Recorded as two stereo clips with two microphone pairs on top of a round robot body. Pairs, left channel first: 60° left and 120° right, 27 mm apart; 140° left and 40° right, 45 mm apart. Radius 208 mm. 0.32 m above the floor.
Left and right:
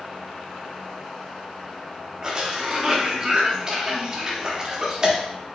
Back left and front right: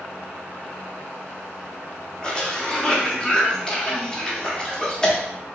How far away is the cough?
About 1.3 m.